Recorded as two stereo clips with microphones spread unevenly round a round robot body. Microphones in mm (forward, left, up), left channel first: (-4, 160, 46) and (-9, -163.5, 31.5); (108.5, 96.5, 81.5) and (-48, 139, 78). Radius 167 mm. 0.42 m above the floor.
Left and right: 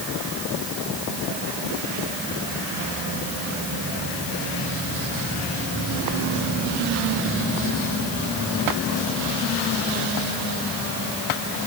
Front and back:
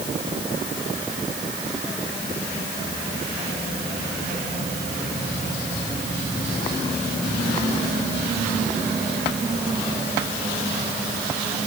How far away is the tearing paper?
No tearing paper in this recording.